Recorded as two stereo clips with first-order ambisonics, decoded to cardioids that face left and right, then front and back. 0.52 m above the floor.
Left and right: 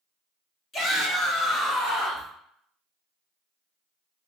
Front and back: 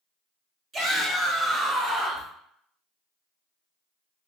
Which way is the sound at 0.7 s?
125° left.